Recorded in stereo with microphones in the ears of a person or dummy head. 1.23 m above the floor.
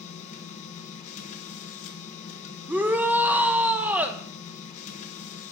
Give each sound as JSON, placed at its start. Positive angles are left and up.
{"t": 0.0, "sound": "a machine running", "side_deg": 45, "distance_m": 1.1}
{"t": 2.7, "sound": "a shout", "side_deg": -10, "distance_m": 0.7}